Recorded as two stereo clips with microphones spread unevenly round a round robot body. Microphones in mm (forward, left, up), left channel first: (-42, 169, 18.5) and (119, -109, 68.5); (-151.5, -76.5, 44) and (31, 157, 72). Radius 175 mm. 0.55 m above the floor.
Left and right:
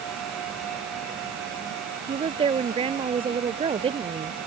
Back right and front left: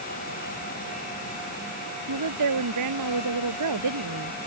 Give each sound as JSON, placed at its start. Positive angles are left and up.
{"t": 2.1, "sound": "a woman speaking", "azimuth_deg": 15}